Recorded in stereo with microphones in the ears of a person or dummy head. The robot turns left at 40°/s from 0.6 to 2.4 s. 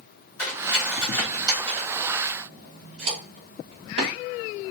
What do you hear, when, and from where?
0.4 s cutlery clinking: 10° left (ahead or behind), 1.6 m; by 4.1 s 50° right (ahead or behind), 1.6 m